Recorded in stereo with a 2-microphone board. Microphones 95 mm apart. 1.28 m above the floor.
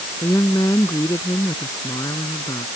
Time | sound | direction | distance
0.2 | a woman speaking | 35° left (ahead or behind) | ?